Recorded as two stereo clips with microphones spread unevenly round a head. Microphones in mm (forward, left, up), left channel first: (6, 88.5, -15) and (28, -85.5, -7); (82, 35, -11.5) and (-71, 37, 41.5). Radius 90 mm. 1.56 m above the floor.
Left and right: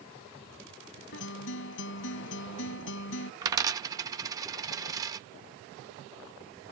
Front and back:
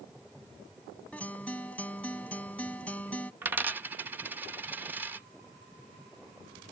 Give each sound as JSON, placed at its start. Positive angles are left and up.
{"t": 1.1, "sound": "a guitar", "azimuth_deg": 85}
{"t": 3.4, "sound": "a dropped coin", "azimuth_deg": -140}